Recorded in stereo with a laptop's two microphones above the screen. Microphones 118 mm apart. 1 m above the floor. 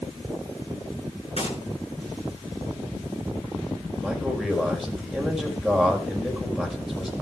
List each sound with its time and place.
1.4 s a gunshot: 55° left (ahead or behind), 7.5 m
4.0 s a man speaking: centre (ahead or behind), 5.5 m